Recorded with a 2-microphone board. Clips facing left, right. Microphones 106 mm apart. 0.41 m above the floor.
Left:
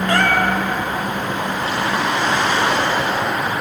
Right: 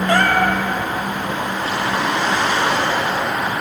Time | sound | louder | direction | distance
0.1 | a cat meowing | right 1 dB | centre (ahead or behind) | 2 m